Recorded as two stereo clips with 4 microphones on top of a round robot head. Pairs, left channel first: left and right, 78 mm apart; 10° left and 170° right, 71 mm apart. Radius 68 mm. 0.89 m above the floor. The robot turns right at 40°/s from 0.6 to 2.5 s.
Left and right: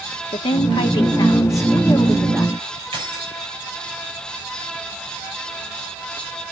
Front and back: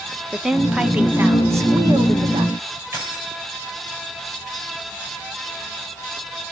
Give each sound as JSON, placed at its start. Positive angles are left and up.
{"t": 0.3, "sound": "a woman speaking", "azimuth_deg": 105, "distance_m": 1.7}
{"t": 2.9, "sound": "keys jangling", "azimuth_deg": -110, "distance_m": 4.5}